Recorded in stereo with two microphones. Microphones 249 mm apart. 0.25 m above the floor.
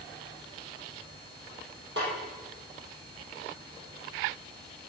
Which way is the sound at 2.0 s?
50° right (ahead or behind).